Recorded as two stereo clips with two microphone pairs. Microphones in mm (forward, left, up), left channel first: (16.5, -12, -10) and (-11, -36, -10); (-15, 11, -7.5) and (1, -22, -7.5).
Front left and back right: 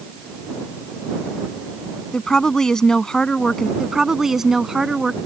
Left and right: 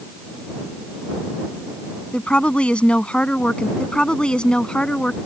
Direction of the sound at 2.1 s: 105° left.